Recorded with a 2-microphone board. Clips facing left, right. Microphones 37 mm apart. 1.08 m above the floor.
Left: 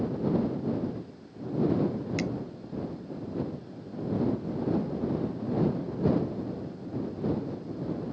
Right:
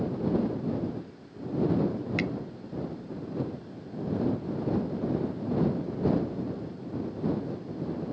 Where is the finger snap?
30° right (ahead or behind).